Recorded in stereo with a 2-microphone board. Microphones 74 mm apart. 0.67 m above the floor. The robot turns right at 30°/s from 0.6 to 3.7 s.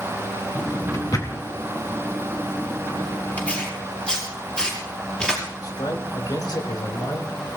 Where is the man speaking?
70° left (ahead or behind), 3.5 m.